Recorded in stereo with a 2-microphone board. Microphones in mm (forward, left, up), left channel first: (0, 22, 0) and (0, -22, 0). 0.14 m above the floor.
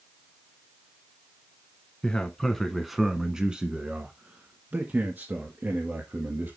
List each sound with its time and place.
2.0 s a man speaking: 20° left (ahead or behind), 1.2 m; by 6.6 s 60° right (ahead or behind), 2.5 m